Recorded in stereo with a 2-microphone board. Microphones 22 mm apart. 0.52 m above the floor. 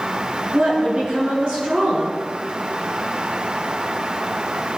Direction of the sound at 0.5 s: 40° right (ahead or behind).